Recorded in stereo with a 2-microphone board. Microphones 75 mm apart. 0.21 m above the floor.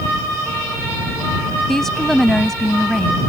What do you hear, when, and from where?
1.7 s a woman speaking: 5° left (ahead or behind)